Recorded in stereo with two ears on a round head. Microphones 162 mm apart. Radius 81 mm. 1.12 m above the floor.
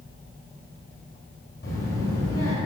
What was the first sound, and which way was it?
A child speaking, 55° left (ahead or behind).